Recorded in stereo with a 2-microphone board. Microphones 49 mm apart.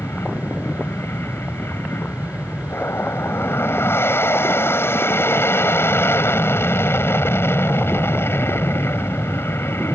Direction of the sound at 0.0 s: 55° left (ahead or behind).